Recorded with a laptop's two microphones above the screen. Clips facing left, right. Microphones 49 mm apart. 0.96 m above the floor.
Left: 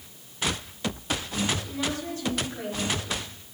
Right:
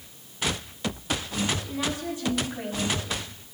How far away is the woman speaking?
About 7 m.